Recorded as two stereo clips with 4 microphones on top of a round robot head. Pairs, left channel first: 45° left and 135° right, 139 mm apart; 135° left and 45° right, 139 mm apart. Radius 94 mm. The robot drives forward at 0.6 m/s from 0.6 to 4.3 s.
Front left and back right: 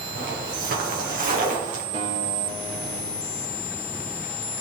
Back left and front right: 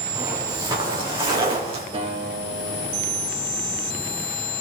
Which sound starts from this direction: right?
A guitar, at 1.9 s.